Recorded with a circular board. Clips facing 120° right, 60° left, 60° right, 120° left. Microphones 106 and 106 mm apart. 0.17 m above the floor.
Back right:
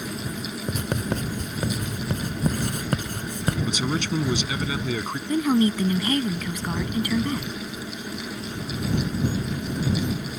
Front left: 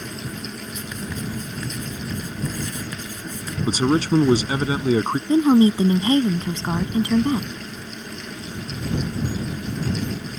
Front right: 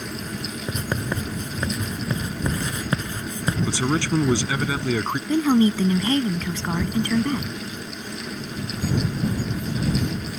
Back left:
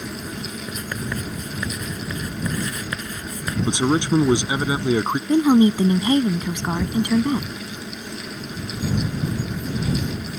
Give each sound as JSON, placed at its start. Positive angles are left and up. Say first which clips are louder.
{"t": 0.7, "sound": "writing", "louder": "back right 9 dB, front right 4 dB", "azimuth_deg": -115}
{"t": 3.7, "sound": "a man speaking", "louder": "front left 7 dB, back left 6 dB", "azimuth_deg": 60}
{"t": 5.3, "sound": "a woman speaking", "louder": "front left 6 dB, back left 3 dB", "azimuth_deg": 70}